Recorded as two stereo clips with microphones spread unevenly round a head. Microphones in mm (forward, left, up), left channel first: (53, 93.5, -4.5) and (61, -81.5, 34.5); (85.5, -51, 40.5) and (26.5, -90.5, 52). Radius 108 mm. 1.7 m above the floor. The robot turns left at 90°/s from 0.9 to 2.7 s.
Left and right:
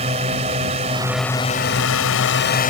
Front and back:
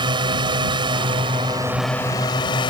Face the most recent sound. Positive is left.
turn(degrees=50)